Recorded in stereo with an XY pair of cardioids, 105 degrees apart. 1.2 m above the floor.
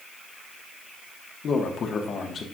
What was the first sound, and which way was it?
A man speaking, 50° left.